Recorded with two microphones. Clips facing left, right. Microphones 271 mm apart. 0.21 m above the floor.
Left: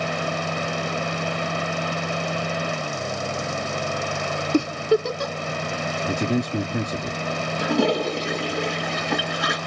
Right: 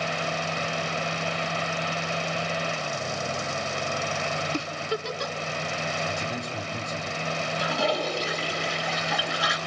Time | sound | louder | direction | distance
4.5 | a giggle | left 15 dB | 50° left (ahead or behind) | 0.6 m
6.1 | a man speaking | left 10 dB | 65° left (ahead or behind) | 4 m
7.6 | a toilet flushing | left 8 dB | 55° left (ahead or behind) | 2 m